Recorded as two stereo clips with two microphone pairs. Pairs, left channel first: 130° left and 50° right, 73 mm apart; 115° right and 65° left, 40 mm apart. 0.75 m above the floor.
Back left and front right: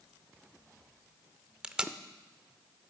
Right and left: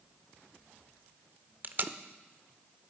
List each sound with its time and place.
1.6 s tape being pulled: 30° left, 0.6 m